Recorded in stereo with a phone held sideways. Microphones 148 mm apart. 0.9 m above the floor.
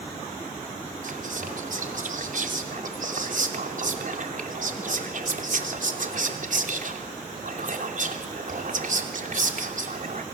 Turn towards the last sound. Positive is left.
turn(degrees=-60)  # may be behind; listen again after turning